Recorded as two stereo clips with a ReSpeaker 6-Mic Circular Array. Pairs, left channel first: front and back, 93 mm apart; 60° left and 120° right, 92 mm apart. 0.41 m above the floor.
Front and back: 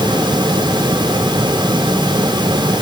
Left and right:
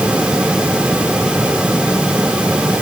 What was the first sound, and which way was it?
Only background noise.